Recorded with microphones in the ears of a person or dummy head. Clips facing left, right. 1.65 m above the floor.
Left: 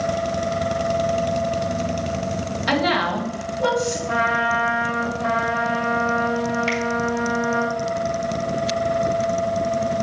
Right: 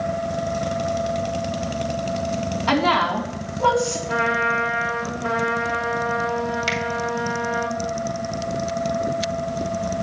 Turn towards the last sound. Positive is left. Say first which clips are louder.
# left 3 dB
turn(degrees=-30)  # may be behind; listen again after turning